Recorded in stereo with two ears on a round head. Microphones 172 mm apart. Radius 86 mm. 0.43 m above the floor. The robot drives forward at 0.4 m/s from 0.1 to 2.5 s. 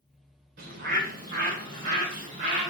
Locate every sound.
0.6 s a bird: 50° right (ahead or behind), 1.6 m; by 2.7 s 45° right (ahead or behind), 1.8 m